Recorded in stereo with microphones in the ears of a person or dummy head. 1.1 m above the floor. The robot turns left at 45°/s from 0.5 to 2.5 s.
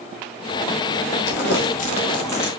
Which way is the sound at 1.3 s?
60° left (ahead or behind).